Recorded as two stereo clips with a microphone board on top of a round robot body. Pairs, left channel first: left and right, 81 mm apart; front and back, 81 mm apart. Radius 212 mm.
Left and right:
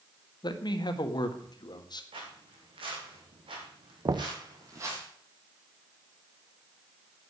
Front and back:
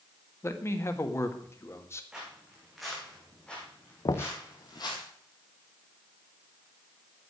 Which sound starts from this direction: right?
Footsteps, at 2.1 s.